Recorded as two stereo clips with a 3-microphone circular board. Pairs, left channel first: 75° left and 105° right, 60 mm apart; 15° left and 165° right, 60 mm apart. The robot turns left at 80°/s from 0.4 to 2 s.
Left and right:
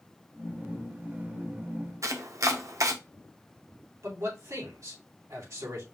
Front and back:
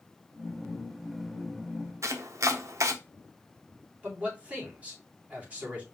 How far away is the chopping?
About 0.8 m.